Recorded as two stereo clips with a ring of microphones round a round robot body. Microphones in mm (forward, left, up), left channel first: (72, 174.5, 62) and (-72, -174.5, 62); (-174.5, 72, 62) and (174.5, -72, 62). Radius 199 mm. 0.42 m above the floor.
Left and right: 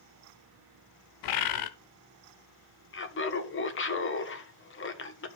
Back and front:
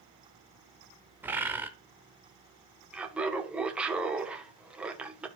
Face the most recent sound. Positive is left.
turn(degrees=60)